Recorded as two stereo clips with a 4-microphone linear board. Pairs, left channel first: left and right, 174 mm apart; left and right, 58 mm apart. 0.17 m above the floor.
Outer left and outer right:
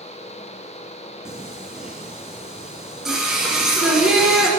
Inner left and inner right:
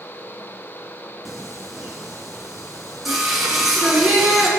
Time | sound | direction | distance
1.2 | singing | 5° right (ahead or behind) | 2.5 m